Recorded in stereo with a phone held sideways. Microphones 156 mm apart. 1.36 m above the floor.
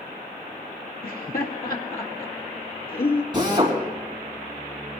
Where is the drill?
30° right (ahead or behind), 4 m.